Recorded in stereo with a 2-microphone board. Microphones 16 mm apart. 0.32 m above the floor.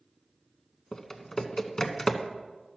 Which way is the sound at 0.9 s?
35° left (ahead or behind).